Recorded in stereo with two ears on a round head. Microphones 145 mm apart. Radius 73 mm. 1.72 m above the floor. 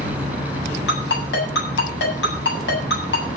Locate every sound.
0.9 s a ringtone: 75° left (ahead or behind), 8.5 m